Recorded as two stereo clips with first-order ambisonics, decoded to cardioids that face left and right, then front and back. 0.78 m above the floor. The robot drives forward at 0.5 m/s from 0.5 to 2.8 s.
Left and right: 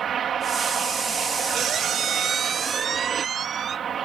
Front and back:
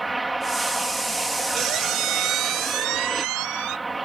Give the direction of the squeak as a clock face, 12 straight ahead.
5 o'clock.